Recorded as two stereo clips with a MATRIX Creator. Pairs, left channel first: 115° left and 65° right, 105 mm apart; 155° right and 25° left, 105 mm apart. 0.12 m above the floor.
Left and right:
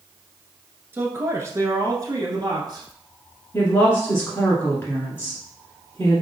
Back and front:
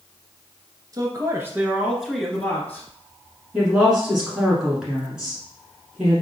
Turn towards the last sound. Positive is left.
turn(degrees=90)